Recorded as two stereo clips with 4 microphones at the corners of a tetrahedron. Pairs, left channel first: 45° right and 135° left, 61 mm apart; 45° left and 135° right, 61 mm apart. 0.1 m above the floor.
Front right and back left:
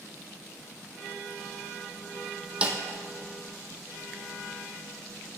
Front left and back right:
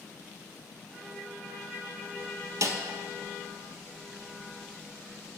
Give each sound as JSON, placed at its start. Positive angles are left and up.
{"t": 2.6, "sound": "a snare drum", "azimuth_deg": -155, "distance_m": 0.8}